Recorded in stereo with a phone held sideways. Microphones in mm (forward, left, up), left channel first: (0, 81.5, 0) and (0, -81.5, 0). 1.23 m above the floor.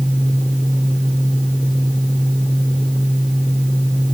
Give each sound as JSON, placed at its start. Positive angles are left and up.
{"t": 0.0, "sound": "a fan", "side_deg": 5, "distance_m": 1.7}